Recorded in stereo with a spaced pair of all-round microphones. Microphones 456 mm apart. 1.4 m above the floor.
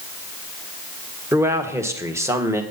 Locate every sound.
1.3 s a man speaking: 5° right (ahead or behind), 1.5 m